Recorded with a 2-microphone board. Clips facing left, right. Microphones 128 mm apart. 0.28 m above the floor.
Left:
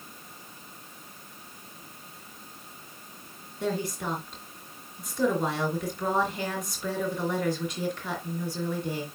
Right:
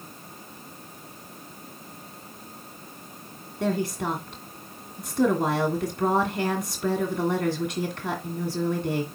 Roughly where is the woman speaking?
Right.